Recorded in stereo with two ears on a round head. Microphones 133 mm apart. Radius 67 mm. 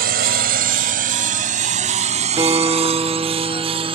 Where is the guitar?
25° right (ahead or behind).